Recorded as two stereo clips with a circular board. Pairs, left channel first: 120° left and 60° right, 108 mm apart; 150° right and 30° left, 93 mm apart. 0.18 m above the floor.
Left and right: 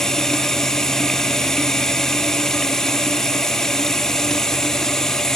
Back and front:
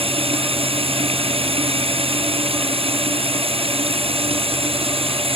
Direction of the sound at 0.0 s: 35° left.